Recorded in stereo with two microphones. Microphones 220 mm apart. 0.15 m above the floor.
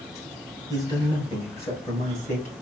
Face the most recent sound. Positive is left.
turn(degrees=35)  # may be behind; listen again after turning